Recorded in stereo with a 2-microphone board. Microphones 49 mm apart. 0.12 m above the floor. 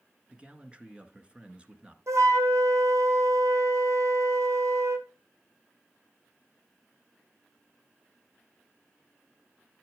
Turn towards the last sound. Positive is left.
turn(degrees=-80)